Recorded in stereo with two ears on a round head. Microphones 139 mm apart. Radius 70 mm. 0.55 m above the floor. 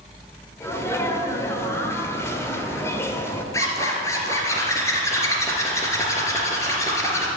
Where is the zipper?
20° left (ahead or behind), 2.5 m.